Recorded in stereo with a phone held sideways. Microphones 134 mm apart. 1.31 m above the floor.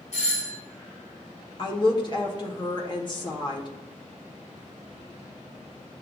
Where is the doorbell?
65° left (ahead or behind), 1.5 m.